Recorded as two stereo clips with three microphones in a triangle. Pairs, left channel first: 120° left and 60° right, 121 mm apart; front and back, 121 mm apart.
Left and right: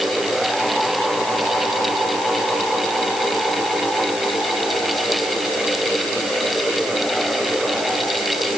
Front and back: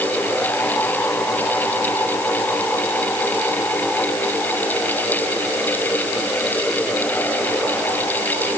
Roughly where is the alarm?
I don't hear an alarm.